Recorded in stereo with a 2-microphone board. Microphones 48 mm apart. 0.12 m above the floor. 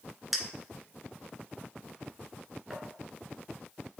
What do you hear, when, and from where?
0.3 s a clink: 5° right (ahead or behind), 1.0 m